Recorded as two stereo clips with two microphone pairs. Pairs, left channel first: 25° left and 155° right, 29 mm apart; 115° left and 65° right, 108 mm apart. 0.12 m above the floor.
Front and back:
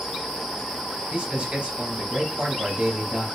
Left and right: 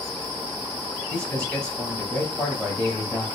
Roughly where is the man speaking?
Behind.